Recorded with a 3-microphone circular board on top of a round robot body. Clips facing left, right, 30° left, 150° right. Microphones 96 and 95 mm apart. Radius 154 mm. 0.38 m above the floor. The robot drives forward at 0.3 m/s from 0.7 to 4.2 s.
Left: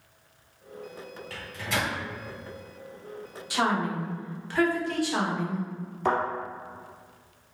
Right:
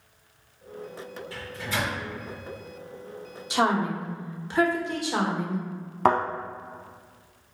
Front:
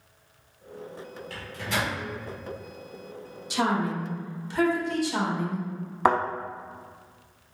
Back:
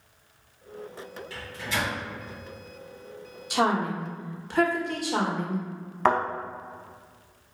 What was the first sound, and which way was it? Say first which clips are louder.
A microwave: left 1 dB, front 1 dB; 70° left.